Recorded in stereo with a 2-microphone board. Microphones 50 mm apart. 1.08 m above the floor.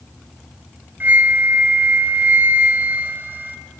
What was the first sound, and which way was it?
A flute, 40° right (ahead or behind).